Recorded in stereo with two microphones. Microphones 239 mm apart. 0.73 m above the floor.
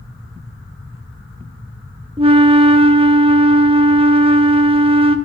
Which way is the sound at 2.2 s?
25° right (ahead or behind).